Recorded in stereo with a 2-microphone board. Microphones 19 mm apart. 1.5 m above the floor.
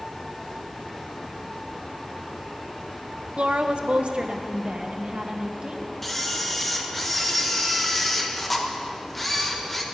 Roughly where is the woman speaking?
Right.